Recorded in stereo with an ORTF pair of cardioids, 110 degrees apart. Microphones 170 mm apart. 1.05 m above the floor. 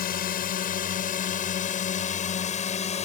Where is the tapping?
I don't hear tapping.